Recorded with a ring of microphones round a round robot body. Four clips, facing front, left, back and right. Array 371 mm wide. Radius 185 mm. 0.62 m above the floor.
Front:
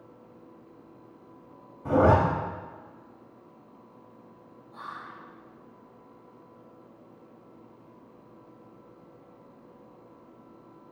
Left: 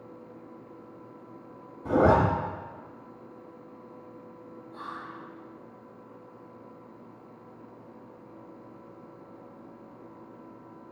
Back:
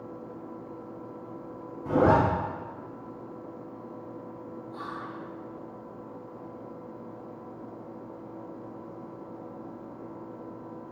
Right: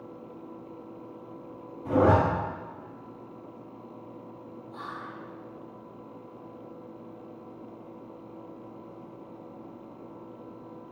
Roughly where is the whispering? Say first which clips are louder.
Even, back 1 dB; behind right.